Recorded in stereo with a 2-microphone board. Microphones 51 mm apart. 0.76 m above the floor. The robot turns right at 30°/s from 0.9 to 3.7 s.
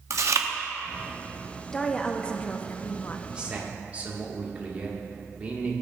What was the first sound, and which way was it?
Chewing, 70° right (ahead or behind).